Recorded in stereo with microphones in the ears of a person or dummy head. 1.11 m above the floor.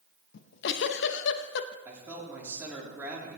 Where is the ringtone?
No ringtone in this recording.